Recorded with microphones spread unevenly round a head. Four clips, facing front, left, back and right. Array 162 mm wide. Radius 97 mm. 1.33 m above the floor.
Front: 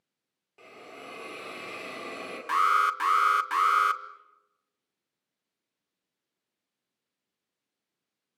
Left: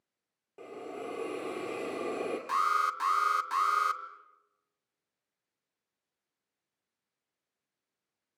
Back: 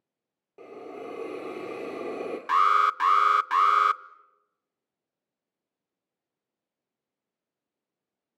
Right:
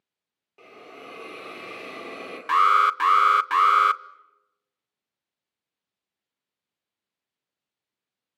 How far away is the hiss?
About 3 m.